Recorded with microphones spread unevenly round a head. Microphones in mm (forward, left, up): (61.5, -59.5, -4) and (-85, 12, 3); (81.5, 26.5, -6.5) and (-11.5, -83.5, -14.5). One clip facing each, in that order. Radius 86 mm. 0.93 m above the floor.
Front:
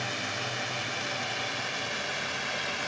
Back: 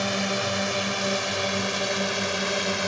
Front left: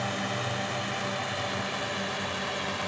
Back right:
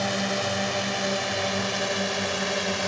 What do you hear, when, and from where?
0.0 s a drone: 175° left; by 2.9 s straight behind